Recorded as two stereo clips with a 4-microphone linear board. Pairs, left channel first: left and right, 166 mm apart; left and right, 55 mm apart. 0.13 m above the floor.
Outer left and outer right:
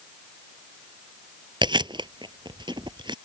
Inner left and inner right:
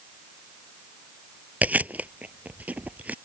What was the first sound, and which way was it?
Chewing, 25° right (ahead or behind).